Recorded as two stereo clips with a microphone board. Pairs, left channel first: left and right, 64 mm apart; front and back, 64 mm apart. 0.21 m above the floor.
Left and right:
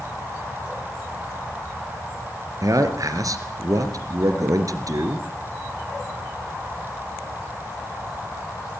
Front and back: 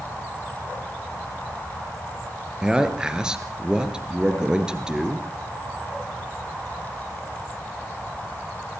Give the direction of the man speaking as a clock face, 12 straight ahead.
3 o'clock.